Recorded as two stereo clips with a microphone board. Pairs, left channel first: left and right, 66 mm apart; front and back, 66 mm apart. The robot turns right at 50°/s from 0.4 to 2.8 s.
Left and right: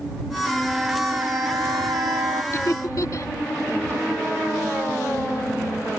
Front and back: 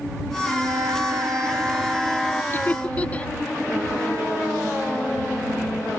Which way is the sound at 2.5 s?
50° left.